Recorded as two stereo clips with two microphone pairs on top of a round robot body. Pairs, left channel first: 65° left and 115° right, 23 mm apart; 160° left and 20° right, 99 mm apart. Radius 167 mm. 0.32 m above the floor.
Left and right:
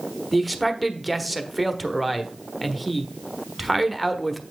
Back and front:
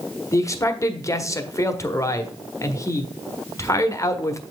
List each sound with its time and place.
0.3 s a man speaking: 160° left, 1.3 m